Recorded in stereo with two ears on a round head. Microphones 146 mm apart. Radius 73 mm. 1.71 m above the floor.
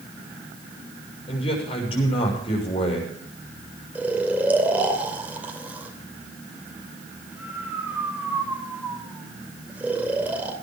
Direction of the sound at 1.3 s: 40° left (ahead or behind).